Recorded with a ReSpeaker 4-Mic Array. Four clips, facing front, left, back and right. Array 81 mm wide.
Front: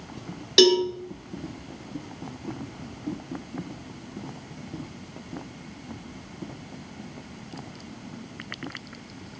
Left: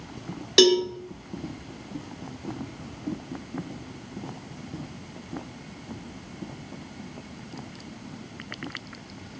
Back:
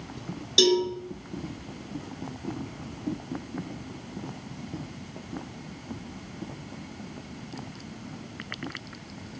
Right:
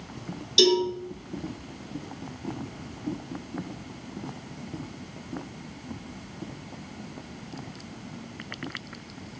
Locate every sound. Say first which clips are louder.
0.6 s a cowbell: left 3 dB, front 4 dB; 60° left, 2.0 m